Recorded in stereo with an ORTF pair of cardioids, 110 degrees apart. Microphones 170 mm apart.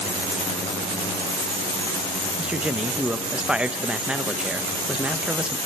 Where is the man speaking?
5° right, 0.6 m.